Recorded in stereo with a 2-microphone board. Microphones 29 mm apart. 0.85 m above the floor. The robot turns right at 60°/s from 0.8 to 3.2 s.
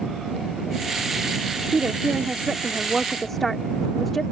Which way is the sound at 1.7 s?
80° right.